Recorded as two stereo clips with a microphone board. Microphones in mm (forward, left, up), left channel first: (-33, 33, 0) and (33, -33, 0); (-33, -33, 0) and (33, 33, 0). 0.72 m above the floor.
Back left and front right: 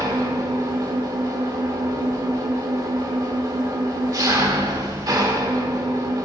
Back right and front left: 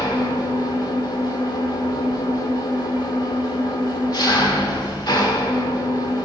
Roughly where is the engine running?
Right.